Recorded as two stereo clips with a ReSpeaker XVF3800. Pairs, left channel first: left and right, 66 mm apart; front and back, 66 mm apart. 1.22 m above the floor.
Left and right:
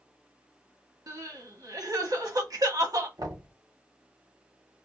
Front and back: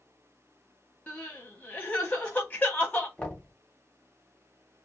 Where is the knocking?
80° right, 1.1 m.